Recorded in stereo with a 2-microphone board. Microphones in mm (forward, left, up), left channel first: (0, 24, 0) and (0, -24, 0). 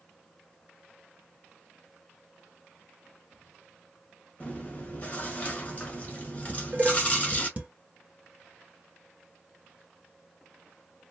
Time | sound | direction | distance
4.4 | chewing | 30° left (ahead or behind) | 1.2 m
6.5 | dishes clattering | 25° right (ahead or behind) | 1.2 m